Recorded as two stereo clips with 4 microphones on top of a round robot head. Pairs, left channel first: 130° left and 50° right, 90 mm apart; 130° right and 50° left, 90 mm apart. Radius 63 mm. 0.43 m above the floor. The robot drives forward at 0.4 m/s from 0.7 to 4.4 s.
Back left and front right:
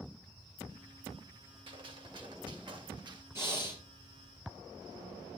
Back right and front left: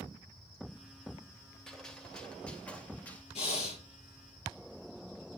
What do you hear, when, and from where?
1.7 s a gunshot: 45° right, 2.5 m; by 3.2 s 65° right, 2 m
3.4 s breathing: 115° right, 3.5 m